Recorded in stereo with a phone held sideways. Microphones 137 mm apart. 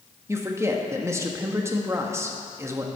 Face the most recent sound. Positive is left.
turn(degrees=-20)  # may be behind; listen again after turning